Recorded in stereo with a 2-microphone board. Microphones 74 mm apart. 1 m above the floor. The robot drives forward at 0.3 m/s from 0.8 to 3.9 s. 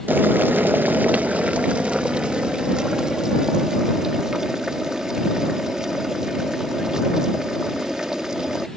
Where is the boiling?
25° right (ahead or behind); by 8.7 s 10° right (ahead or behind).